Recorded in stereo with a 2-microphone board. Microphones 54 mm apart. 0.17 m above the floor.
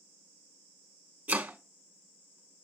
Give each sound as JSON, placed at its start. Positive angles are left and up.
{"t": 1.3, "sound": "chopping", "side_deg": -35, "distance_m": 0.7}